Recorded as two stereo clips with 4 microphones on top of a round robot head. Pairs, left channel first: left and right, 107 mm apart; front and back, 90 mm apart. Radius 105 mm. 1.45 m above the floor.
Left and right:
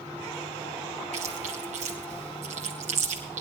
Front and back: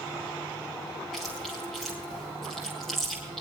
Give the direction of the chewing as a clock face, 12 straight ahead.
3 o'clock.